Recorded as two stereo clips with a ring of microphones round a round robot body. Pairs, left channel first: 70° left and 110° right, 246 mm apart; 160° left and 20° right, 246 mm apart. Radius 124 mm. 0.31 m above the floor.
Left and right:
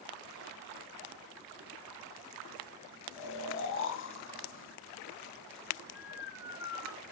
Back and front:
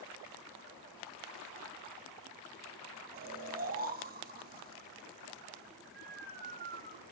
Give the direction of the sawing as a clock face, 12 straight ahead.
I don't hear sawing.